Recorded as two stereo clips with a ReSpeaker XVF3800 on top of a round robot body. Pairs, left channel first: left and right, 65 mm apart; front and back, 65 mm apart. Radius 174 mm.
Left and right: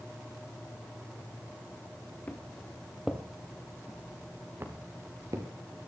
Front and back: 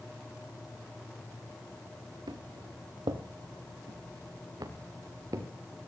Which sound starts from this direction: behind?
Footsteps, at 2.3 s.